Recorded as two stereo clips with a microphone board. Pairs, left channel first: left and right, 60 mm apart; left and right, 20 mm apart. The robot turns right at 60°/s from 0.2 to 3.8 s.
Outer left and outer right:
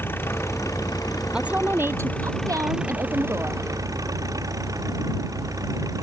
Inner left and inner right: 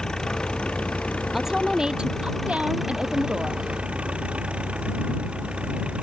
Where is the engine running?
35° left; by 6.0 s 105° right.